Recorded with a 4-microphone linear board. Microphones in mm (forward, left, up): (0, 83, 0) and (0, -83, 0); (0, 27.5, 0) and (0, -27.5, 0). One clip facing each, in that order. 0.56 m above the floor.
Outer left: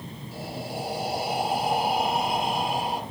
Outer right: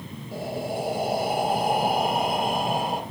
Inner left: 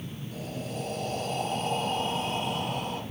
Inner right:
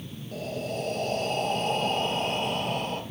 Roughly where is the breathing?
Right.